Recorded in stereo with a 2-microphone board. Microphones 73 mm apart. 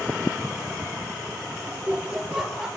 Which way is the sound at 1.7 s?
25° right (ahead or behind).